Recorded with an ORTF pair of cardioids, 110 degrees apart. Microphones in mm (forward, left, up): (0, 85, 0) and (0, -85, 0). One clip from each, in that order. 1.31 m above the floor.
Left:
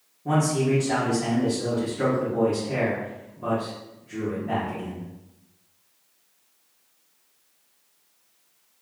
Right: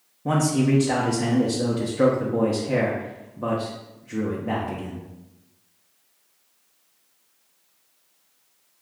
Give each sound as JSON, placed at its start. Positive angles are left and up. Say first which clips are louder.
{"t": 0.2, "sound": "a man speaking", "louder": "right 1 dB", "azimuth_deg": -40, "distance_m": 0.7}